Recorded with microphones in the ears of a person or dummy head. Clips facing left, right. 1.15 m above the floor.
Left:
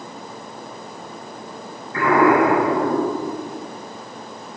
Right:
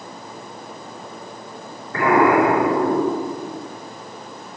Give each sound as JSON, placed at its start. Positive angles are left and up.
{"t": 1.9, "sound": "an explosion", "side_deg": -55, "distance_m": 5.0}